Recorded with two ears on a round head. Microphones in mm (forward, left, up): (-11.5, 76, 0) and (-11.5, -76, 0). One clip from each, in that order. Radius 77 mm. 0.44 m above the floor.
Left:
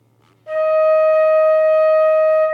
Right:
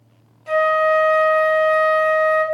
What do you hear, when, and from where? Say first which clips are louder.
0.5 s a flute: left 2 dB; 70° right (ahead or behind), 0.6 m